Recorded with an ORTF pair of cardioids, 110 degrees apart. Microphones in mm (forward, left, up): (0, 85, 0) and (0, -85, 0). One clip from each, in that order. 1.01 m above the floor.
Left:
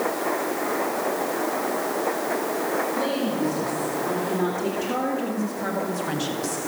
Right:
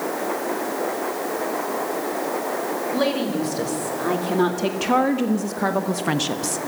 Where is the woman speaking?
60° right, 2.5 m; by 6.6 s 35° right, 1.0 m.